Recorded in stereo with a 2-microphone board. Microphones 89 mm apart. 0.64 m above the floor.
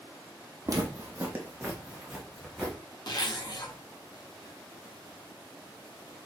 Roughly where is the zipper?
Left.